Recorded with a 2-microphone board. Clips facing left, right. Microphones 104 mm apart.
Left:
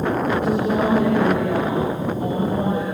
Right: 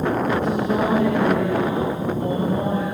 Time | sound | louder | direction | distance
0.4 | a woman speaking | left 1 dB | 80° left | 7.5 m